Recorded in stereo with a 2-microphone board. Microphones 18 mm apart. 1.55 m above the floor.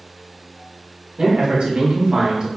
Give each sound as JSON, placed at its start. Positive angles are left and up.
{"t": 1.2, "sound": "a man speaking", "side_deg": -60, "distance_m": 1.6}